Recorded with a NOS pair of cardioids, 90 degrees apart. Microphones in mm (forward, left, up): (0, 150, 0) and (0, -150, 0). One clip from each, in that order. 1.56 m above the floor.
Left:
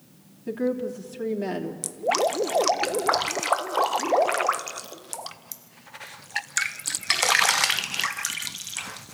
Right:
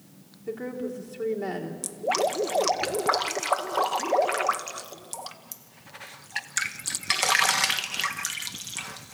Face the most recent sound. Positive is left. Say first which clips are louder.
# left 2 dB
turn(degrees=15)